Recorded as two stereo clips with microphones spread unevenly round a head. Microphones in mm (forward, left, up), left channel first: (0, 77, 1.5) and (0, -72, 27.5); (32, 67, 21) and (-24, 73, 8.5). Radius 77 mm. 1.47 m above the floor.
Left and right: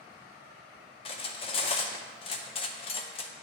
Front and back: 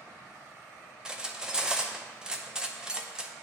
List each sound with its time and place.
1.1 s cutlery clinking: 85° left, 0.5 m